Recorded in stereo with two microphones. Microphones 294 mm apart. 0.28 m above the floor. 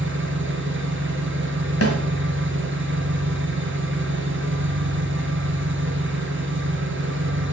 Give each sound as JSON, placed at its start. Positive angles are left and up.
{"t": 0.0, "sound": "an engine running", "side_deg": -45, "distance_m": 3.0}
{"t": 1.8, "sound": "a snare drum", "side_deg": 55, "distance_m": 1.5}